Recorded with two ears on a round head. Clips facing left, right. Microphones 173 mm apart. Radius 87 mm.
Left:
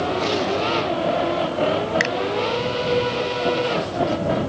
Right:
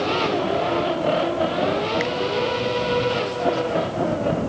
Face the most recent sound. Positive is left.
turn(degrees=85)